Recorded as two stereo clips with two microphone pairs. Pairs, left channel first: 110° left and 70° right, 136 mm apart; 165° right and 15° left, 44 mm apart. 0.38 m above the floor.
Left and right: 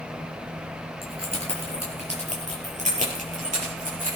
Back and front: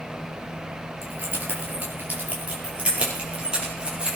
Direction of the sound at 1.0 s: 25° right.